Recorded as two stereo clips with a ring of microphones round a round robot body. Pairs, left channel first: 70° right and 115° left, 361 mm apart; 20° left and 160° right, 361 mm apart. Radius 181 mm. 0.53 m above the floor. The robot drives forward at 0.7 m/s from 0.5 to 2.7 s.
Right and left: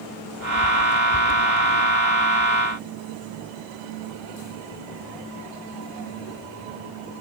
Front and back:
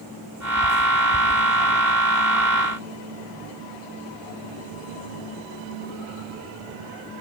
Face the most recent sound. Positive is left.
No sound to turn to.